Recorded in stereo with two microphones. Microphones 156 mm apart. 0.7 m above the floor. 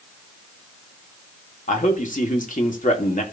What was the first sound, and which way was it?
A man speaking, 55° left (ahead or behind).